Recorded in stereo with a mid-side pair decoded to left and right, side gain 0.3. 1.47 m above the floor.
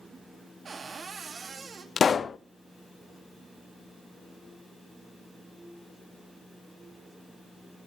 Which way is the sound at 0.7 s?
60° right.